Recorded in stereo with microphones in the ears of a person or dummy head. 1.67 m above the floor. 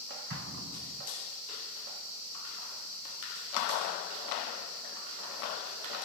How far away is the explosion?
About 4 m.